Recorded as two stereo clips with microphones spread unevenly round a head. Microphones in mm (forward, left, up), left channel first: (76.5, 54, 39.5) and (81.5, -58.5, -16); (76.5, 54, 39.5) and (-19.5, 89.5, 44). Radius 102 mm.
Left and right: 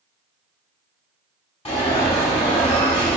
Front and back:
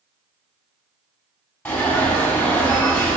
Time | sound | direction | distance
1.6 | an alarm | 55° left | 4.5 m